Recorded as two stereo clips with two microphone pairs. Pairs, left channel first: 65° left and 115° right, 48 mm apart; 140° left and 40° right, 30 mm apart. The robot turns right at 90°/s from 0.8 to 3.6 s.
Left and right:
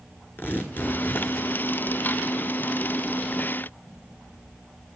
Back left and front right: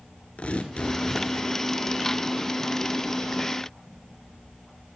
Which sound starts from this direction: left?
Tearing paper, at 0.4 s.